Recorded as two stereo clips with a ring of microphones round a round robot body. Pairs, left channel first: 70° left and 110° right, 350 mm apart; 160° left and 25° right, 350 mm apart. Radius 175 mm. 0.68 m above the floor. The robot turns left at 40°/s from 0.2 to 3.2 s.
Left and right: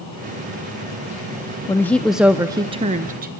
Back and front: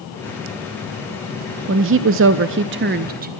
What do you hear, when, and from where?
1.7 s a woman speaking: 5° right, 0.5 m; by 3.3 s 70° right, 0.5 m